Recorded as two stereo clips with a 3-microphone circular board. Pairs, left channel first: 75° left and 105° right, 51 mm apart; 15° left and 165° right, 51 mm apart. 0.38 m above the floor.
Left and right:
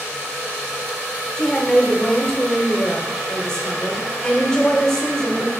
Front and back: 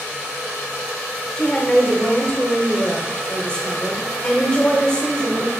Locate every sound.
1.4 s a woman speaking: 30° left, 1.2 m